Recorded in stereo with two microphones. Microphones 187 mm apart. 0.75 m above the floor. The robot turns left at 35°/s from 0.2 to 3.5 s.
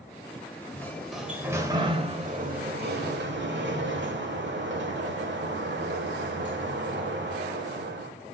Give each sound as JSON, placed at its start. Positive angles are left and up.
{"t": 0.7, "sound": "a sliding door", "azimuth_deg": 15, "distance_m": 1.2}